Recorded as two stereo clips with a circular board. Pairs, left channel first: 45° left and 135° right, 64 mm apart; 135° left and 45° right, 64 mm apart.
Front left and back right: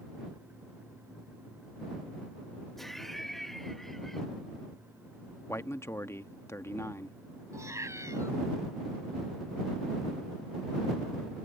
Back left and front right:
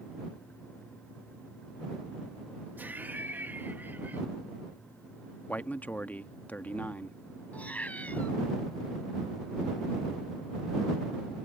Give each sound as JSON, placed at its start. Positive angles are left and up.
{"t": 2.8, "sound": "laughter", "azimuth_deg": -35}
{"t": 5.5, "sound": "a man speaking", "azimuth_deg": 75}
{"t": 7.5, "sound": "a cat meowing", "azimuth_deg": -160}